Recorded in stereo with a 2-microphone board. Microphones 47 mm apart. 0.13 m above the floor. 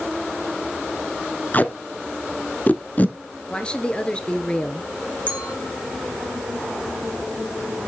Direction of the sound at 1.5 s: 35° left (ahead or behind).